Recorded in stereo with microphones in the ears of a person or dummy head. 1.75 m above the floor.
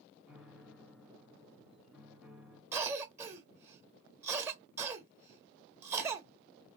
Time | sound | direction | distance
0.3 | a piano | 5° right (ahead or behind) | 0.7 m
2.7 | a cough | 10° right (ahead or behind) | 0.7 m